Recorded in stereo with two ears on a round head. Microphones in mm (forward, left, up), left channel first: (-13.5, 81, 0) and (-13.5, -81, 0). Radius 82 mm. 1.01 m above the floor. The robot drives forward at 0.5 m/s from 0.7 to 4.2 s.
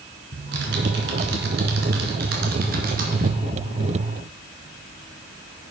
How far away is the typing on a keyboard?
About 2 m.